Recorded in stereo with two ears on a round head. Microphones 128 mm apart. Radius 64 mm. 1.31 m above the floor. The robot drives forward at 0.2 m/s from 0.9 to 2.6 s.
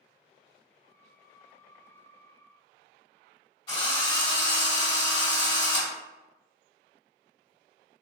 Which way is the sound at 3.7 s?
35° left (ahead or behind).